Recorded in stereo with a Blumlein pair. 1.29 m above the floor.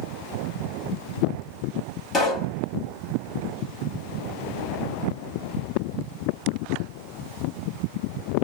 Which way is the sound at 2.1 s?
20° left.